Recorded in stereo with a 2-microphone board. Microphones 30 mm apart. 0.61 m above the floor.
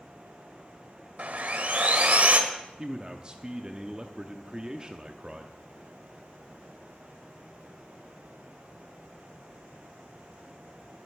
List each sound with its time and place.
1.2 s sawing: 50° right (ahead or behind), 1.5 m
2.8 s a man speaking: 30° right (ahead or behind), 0.9 m